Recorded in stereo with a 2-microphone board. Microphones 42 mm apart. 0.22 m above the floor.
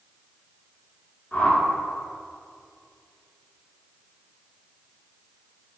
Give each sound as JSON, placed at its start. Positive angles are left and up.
{"t": 1.3, "sound": "a whoosh", "side_deg": 35, "distance_m": 2.0}